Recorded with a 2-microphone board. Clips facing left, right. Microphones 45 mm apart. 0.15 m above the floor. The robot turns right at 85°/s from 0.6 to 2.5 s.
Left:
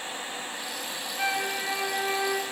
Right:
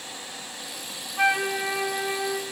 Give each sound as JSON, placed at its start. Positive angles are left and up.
{"t": 1.2, "sound": "a flute", "azimuth_deg": -70, "distance_m": 0.7}